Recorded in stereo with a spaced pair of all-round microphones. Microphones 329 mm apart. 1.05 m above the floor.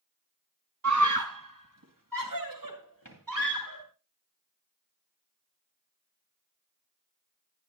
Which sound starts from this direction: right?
A scream, at 0.8 s.